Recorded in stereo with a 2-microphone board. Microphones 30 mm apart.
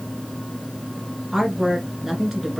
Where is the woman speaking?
10° right (ahead or behind), 1.7 m.